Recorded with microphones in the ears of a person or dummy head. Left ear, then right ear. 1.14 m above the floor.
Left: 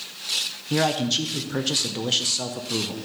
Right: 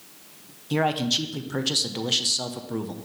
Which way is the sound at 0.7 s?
5° right (ahead or behind).